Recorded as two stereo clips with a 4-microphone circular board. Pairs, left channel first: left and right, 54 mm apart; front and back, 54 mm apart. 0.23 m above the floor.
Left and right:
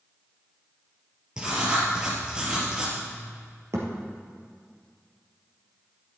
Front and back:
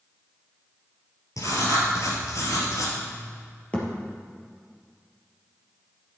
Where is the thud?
65° right, 3 m.